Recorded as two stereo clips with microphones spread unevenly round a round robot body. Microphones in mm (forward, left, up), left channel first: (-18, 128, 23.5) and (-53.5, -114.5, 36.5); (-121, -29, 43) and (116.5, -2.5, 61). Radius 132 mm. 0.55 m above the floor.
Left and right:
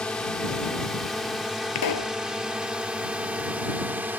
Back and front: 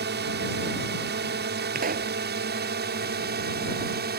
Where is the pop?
60° left.